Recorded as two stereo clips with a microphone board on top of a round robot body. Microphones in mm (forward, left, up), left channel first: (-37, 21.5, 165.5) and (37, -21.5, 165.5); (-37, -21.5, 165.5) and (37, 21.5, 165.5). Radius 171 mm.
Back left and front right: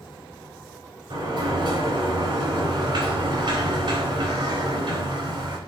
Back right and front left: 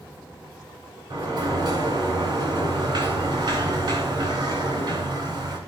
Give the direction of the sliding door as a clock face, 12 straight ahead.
12 o'clock.